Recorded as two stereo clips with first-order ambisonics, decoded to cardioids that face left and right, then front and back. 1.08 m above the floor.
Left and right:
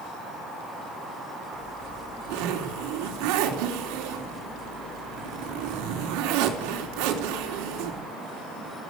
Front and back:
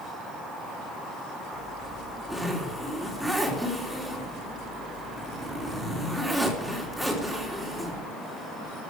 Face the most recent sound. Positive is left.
turn(degrees=-90)